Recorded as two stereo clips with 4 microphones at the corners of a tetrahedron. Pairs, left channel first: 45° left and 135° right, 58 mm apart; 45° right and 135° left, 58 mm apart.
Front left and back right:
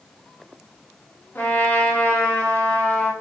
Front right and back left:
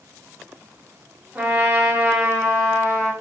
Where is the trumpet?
90° left, 1.2 m.